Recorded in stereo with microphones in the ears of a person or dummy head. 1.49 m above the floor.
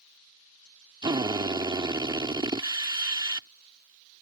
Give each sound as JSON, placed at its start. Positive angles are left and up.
{"t": 1.0, "sound": "a drill", "side_deg": -25}